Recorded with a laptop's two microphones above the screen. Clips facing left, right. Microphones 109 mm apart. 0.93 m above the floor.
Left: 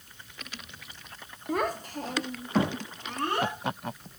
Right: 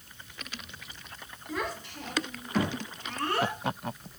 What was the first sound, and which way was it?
A child speaking, 55° left (ahead or behind).